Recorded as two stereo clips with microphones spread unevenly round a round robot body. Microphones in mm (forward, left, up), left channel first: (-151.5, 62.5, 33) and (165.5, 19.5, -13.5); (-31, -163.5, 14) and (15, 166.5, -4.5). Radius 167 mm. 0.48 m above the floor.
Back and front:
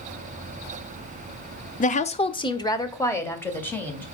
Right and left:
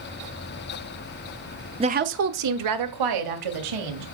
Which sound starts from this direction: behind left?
A woman speaking, at 1.8 s.